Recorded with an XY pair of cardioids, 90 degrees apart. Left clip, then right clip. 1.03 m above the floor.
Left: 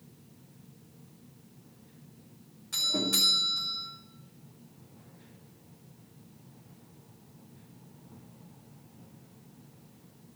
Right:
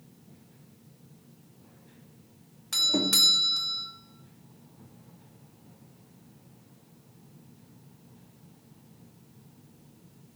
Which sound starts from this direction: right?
A doorbell, at 2.7 s.